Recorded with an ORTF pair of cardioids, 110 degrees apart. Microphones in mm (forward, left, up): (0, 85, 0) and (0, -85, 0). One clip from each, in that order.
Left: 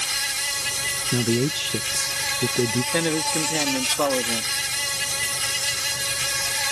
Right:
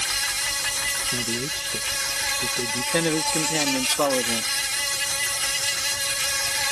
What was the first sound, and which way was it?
An insect, straight ahead.